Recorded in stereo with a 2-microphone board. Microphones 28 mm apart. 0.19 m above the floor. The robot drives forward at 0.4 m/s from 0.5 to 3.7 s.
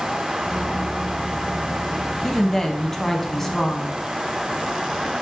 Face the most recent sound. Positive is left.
turn(degrees=15)  # may be behind; listen again after turning